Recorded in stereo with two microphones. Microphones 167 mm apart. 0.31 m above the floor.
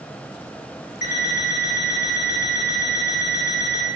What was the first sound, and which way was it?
An alarm clock, 65° left (ahead or behind).